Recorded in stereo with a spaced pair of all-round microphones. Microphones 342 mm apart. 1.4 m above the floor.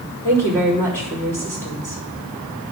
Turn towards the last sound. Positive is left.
turn(degrees=5)  # may be behind; listen again after turning